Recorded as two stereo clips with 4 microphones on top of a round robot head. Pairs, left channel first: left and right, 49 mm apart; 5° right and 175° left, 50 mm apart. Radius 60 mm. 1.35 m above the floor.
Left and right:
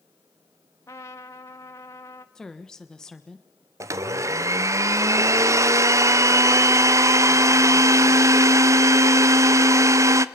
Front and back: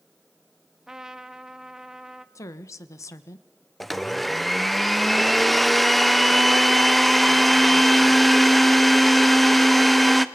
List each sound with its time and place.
0.9 s a trumpet: 100° left, 0.8 m
2.4 s a woman speaking: 10° left, 1.3 m
3.8 s a blender: 95° right, 0.7 m